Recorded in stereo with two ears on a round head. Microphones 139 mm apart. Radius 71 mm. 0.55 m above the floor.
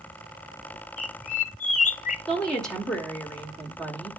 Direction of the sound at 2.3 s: 5° left (ahead or behind).